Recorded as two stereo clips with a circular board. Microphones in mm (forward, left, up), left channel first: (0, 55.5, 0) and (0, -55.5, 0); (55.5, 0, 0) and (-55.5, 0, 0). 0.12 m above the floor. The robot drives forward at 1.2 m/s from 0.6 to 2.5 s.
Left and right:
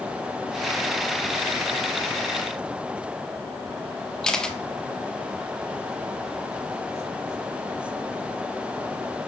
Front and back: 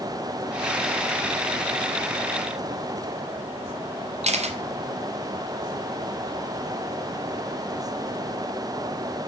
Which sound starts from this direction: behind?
A camera shutter, at 4.2 s.